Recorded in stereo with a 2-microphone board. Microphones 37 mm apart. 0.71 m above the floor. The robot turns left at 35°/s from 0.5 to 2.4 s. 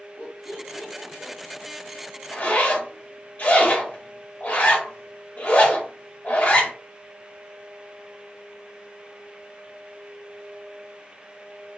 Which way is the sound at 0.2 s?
45° right (ahead or behind).